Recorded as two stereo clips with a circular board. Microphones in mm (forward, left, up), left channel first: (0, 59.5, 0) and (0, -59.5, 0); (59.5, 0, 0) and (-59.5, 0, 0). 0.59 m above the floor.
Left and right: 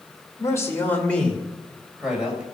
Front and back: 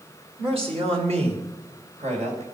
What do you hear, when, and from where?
0.4 s a man speaking: 150° left, 2.5 m; by 2.4 s 170° right, 3.5 m